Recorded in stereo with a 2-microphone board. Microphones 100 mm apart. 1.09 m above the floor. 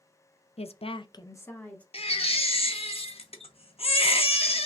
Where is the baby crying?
75° left (ahead or behind), 0.8 m.